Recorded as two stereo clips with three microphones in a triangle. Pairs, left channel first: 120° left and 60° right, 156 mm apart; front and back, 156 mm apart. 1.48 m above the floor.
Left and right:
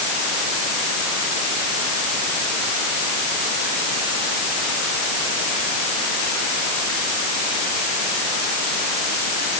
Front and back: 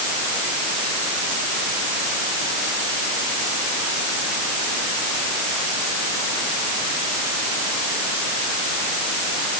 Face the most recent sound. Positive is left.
No sound to turn to.